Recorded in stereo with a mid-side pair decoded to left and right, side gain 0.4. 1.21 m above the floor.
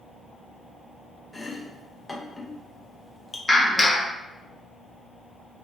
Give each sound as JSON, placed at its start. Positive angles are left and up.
{"t": 1.3, "sound": "chopping", "azimuth_deg": 20, "distance_m": 0.9}
{"t": 3.5, "sound": "a clap", "azimuth_deg": 15, "distance_m": 1.4}